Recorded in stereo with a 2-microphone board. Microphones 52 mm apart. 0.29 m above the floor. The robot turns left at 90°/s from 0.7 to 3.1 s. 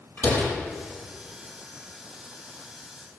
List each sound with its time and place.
0.2 s a door slam: 40° left (ahead or behind), 5 m